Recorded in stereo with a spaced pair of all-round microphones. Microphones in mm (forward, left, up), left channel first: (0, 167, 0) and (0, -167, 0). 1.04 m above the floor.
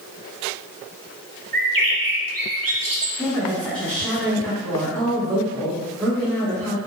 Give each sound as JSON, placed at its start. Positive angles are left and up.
{"t": 1.5, "sound": "a bird", "side_deg": -80, "distance_m": 0.5}
{"t": 3.2, "sound": "a woman speaking", "side_deg": 5, "distance_m": 1.4}